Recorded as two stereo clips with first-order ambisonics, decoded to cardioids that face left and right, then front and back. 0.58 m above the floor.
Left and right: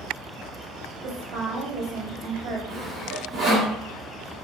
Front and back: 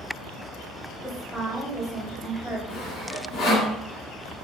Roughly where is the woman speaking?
Right.